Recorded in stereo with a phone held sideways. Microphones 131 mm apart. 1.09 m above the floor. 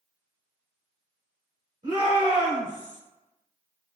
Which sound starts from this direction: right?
A shout, at 1.8 s.